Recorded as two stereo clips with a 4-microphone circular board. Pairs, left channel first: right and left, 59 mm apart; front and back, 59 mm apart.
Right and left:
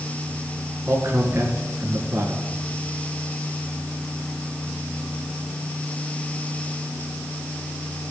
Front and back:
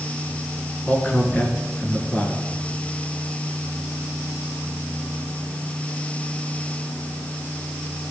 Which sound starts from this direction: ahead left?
A man speaking, at 0.9 s.